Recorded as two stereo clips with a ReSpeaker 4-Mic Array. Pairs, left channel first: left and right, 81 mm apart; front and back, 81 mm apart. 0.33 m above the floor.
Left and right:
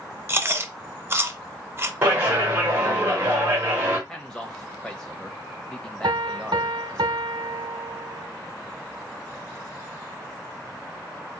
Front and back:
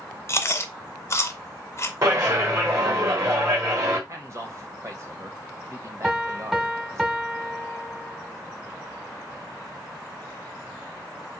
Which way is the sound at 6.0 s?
95° right.